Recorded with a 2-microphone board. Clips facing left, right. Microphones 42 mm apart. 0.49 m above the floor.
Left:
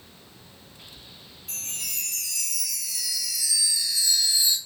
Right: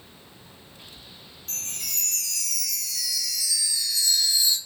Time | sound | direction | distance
1.5 | a chime | 20° left (ahead or behind) | 0.8 m